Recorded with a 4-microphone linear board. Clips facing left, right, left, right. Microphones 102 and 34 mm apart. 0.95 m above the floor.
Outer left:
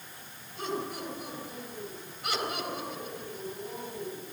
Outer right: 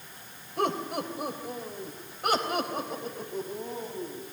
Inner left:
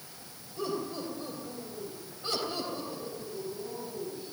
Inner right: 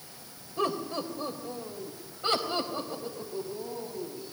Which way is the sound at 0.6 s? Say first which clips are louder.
Outer right 6 dB, inner right 4 dB; 65° right (ahead or behind).